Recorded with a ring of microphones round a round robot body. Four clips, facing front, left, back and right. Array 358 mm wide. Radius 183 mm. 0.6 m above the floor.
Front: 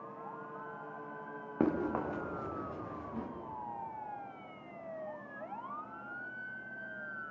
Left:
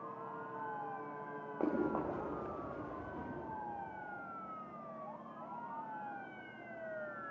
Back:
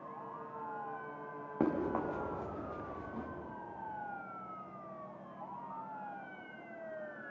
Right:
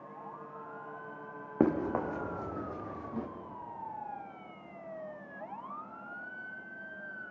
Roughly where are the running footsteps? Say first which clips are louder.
Right 6 dB, front 1 dB; right.